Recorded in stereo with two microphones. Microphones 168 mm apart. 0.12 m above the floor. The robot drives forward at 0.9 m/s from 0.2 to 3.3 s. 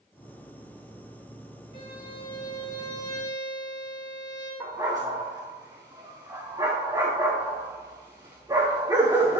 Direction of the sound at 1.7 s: 30° left (ahead or behind).